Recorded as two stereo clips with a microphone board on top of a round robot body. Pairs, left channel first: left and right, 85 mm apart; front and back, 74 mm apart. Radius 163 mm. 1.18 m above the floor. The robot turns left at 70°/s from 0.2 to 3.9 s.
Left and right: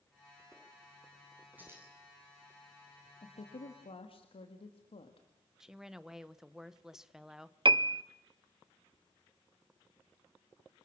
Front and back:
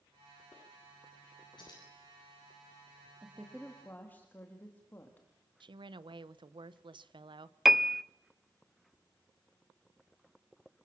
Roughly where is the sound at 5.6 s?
Behind.